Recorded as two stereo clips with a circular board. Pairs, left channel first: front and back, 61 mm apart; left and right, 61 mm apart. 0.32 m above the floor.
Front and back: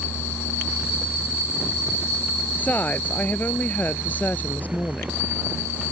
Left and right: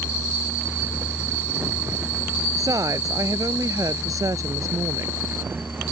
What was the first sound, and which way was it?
A woman speaking, 65° right.